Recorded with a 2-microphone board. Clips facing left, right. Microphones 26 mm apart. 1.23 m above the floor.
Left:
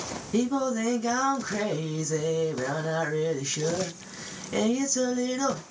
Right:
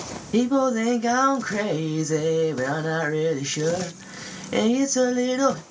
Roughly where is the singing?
Right.